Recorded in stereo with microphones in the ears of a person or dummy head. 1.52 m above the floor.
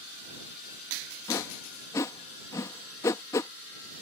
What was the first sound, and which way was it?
A whoosh, 15° left (ahead or behind).